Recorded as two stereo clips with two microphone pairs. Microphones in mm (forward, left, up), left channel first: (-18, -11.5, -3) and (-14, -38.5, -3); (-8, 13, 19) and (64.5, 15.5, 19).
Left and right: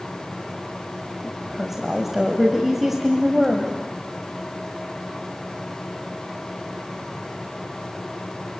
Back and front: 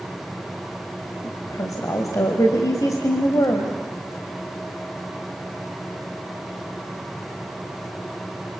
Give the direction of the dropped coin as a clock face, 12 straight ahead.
No dropped coin in this recording.